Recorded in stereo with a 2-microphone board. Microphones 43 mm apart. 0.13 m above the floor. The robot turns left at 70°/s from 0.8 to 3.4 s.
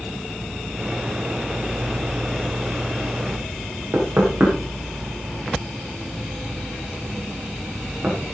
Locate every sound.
3.9 s knocking: 40° right (ahead or behind), 10 m